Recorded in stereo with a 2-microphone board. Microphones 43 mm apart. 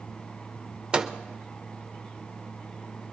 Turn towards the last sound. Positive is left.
turn(degrees=-25)  # may be behind; listen again after turning